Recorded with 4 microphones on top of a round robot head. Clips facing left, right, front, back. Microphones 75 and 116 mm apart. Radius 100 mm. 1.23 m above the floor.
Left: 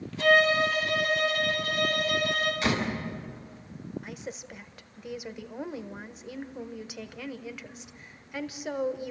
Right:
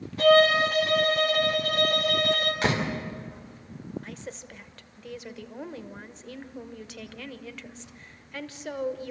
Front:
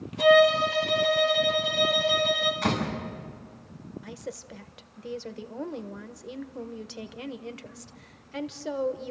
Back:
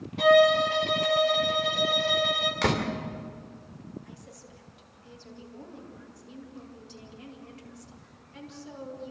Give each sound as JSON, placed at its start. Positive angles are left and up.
{"t": 0.2, "sound": "a violin", "azimuth_deg": -135, "distance_m": 3.0}
{"t": 2.6, "sound": "a door slam", "azimuth_deg": -150, "distance_m": 2.5}
{"t": 4.0, "sound": "a woman speaking", "azimuth_deg": 10, "distance_m": 1.3}